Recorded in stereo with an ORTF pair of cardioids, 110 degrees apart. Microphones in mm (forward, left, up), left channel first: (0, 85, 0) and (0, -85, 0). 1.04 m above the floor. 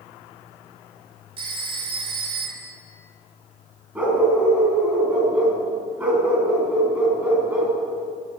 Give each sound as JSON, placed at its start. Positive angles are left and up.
{"t": 1.4, "sound": "a phone ringing", "azimuth_deg": -30, "distance_m": 2.5}
{"t": 4.0, "sound": "a dog barking", "azimuth_deg": -10, "distance_m": 4.0}